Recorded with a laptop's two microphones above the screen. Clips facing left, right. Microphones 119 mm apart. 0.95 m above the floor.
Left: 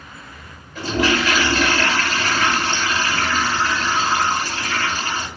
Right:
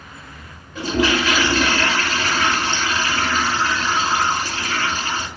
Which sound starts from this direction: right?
A toilet flushing, at 0.8 s.